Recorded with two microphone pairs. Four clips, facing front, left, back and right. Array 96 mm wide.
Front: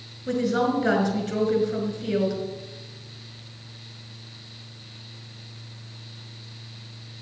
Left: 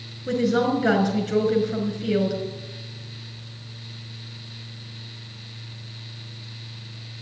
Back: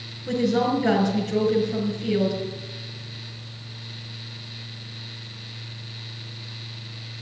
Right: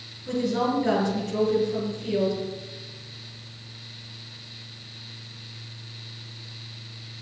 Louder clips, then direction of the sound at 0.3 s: Left 4 dB, back 1 dB; 55° left.